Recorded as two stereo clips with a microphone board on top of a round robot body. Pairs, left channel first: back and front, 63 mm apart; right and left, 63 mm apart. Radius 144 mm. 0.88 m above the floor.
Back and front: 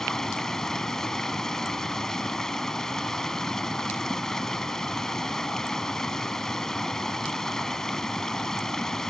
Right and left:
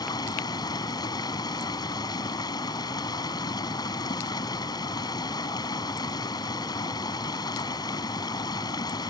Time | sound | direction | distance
0.0 | running water | 100° right | ?